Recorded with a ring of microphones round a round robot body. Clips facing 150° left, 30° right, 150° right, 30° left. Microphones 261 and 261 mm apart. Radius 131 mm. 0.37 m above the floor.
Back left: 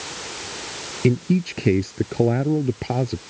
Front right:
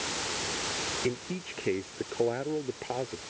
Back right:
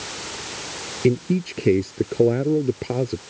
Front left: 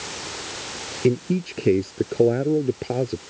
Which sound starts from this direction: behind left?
A man speaking, at 1.0 s.